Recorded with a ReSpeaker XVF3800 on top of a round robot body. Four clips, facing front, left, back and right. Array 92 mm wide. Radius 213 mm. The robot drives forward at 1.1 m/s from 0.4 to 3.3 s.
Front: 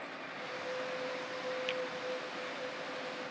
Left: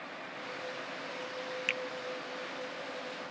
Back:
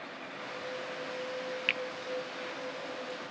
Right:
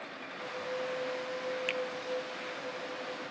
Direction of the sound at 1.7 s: 155° left.